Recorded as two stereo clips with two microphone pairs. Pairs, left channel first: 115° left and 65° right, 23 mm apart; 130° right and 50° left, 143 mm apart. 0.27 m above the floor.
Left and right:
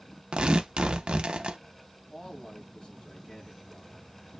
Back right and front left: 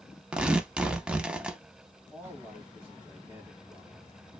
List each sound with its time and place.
0.3 s tearing paper: 30° right, 0.5 m
2.1 s a man speaking: 120° left, 2.0 m